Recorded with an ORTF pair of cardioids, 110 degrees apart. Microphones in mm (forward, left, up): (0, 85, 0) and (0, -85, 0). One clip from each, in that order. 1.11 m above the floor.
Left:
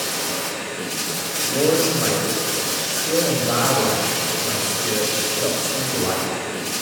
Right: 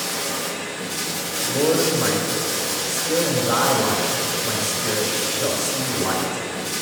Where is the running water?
15° left, 1.7 m.